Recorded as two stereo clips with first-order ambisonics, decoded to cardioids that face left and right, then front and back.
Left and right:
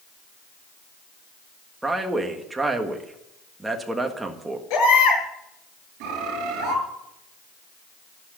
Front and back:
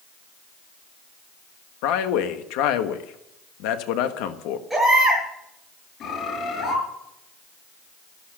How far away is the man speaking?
About 1.5 m.